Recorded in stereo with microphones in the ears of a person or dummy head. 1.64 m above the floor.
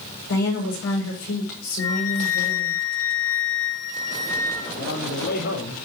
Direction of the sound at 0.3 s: 75° left (ahead or behind).